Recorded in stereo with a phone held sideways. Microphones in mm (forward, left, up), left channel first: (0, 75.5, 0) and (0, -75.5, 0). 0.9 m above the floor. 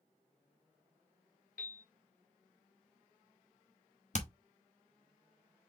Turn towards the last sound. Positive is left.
turn(degrees=50)  # may be behind; listen again after turning